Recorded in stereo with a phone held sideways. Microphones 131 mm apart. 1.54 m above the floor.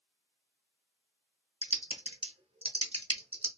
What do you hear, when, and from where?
1.6 s typing on a keyboard: 50° right (ahead or behind), 0.8 m